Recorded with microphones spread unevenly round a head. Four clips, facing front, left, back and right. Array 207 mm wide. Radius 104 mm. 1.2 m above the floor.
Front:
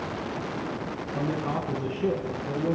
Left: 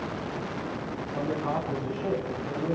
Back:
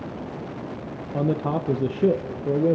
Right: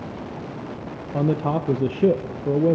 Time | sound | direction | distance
1.1 | a man speaking | 110° right | 0.8 m